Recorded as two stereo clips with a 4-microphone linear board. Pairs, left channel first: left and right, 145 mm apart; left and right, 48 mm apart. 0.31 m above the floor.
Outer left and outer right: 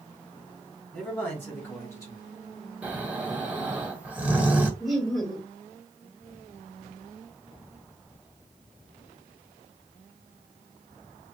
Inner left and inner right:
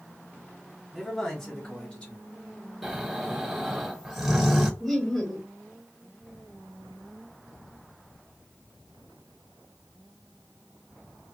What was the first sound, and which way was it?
A man speaking, 10° left (ahead or behind).